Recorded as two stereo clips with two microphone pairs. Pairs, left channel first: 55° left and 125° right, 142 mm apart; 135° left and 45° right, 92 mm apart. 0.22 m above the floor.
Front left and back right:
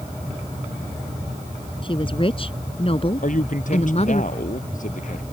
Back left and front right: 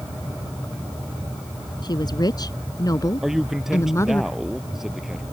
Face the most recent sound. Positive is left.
turn(degrees=40)